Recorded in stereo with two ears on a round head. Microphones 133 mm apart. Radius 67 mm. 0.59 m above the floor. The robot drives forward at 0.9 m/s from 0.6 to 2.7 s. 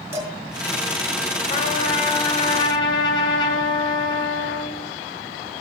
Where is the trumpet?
50° left (ahead or behind), 2.0 m; by 4.9 s 30° left (ahead or behind), 3 m.